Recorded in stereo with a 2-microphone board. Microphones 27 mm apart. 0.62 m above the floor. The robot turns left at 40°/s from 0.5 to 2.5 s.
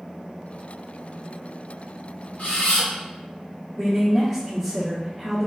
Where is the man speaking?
15° left (ahead or behind), 1.3 m.